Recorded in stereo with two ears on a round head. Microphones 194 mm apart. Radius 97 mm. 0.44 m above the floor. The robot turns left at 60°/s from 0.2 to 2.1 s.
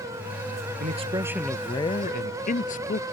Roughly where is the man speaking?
Behind right.